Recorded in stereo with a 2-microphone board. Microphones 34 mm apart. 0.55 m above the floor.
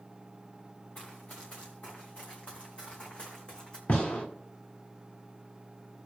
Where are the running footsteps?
45° left (ahead or behind), 4 m; by 3.8 s 25° left (ahead or behind), 2.5 m.